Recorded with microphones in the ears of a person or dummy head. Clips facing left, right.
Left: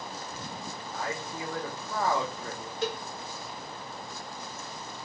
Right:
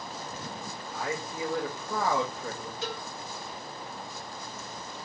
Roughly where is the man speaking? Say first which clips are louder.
Right 2 dB; centre.